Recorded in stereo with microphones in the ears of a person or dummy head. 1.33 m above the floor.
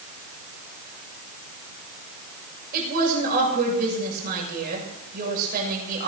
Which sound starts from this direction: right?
A woman speaking, at 2.7 s.